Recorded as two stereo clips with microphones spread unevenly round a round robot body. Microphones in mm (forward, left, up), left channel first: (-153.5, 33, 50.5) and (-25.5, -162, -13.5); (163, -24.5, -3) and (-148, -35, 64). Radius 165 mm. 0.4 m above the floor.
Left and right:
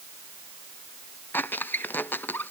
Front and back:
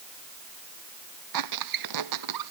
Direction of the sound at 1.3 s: 155° right.